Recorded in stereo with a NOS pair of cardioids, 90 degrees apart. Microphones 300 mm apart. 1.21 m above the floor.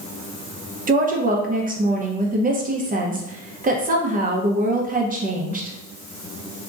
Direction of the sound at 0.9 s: 30° right.